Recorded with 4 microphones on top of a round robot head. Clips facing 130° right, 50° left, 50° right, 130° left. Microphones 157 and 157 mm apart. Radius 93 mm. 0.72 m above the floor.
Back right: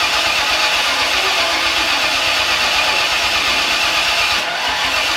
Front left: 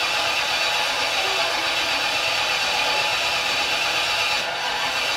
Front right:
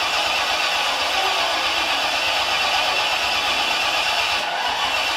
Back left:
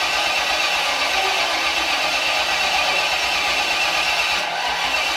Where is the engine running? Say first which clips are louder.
Back right 5 dB, even; 145° right, 1.0 m.